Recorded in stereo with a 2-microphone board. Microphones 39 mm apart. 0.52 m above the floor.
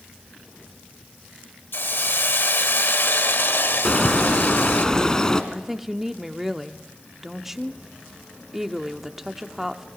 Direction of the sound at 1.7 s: 70° left (ahead or behind).